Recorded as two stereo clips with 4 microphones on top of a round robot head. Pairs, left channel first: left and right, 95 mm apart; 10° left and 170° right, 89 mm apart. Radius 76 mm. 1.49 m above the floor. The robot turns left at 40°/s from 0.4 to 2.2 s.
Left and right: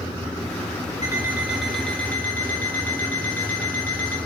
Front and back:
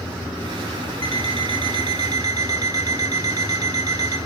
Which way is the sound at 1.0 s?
150° right.